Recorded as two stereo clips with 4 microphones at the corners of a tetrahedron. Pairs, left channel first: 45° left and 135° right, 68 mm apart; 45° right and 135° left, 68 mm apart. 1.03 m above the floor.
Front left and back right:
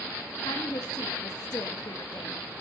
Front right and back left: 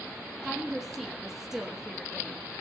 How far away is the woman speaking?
About 1.4 m.